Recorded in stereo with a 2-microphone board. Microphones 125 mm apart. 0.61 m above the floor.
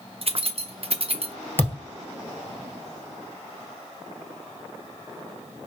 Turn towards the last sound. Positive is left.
turn(degrees=15)  # may be behind; listen again after turning